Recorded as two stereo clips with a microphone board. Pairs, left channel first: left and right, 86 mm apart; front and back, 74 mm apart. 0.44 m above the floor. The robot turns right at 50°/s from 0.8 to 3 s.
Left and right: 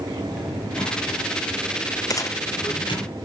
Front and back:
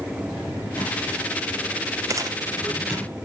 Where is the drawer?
5° left, 4.5 m; by 3.1 s 115° left, 4.5 m.